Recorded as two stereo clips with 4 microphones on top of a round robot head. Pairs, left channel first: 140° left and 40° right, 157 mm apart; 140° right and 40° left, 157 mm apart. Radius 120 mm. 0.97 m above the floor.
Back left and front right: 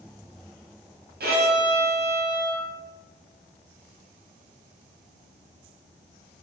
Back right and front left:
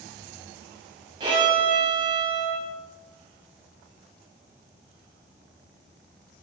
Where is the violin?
25° right, 1.2 m.